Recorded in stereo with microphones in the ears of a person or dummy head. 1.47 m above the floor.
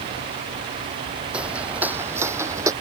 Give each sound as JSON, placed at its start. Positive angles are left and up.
{"t": 1.3, "sound": "footsteps", "side_deg": -5}